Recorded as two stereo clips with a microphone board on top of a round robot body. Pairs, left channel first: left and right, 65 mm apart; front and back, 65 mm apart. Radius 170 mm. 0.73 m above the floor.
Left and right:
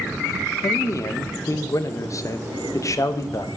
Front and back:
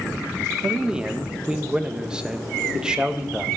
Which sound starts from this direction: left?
A man speaking, at 0.6 s.